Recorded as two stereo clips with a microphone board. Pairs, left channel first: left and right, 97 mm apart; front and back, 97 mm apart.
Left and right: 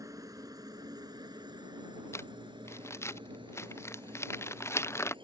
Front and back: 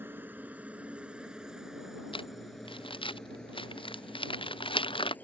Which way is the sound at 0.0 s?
120° right.